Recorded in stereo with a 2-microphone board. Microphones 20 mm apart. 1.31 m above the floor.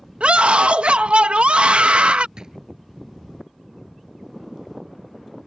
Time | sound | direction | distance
0.2 | a scream | 85° right | ?
2.4 | a drawer | 35° right (ahead or behind) | ?